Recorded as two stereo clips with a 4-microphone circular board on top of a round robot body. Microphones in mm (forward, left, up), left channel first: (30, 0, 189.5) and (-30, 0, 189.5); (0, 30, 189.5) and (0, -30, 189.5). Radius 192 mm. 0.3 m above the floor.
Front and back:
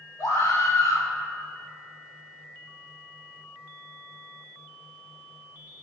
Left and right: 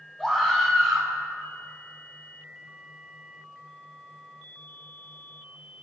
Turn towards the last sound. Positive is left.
turn(degrees=10)